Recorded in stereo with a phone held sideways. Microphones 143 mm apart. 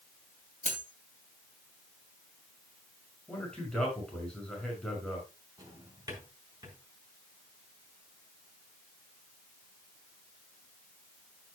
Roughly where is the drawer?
Right.